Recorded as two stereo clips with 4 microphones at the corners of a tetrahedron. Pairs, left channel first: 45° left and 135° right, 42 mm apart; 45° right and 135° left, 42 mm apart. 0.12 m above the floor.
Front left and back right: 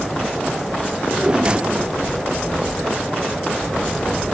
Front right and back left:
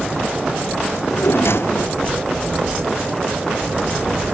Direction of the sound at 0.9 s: 70° right.